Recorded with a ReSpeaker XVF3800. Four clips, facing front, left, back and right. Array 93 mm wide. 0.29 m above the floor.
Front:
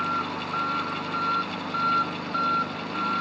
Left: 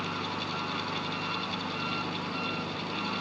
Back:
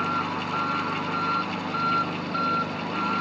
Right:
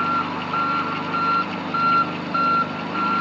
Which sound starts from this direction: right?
An engine running, at 0.0 s.